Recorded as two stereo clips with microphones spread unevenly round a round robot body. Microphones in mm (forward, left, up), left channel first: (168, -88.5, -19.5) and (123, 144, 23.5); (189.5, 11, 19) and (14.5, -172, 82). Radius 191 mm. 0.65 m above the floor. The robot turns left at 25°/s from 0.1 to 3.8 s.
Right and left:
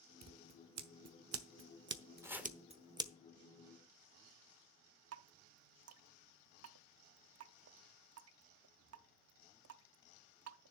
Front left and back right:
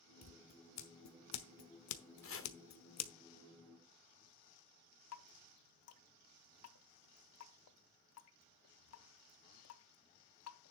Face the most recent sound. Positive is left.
turn(degrees=65)